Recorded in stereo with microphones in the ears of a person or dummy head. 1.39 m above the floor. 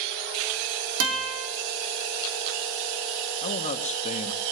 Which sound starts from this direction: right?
A guitar, at 1.0 s.